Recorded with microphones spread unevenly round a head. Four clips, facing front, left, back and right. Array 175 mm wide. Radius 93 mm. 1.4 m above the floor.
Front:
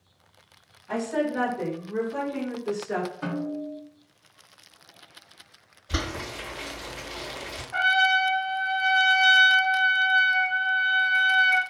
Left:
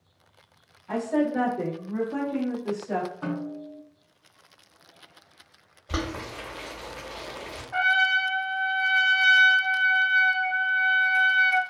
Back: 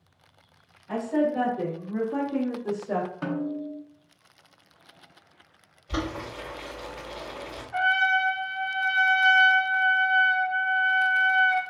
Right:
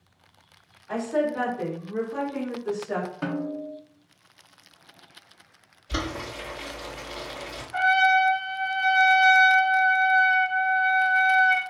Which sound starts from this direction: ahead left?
A trumpet, at 7.7 s.